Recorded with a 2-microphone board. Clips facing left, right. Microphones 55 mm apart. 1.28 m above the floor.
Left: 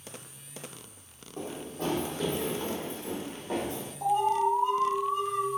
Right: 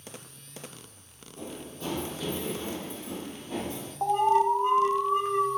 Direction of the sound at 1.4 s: 50° left (ahead or behind).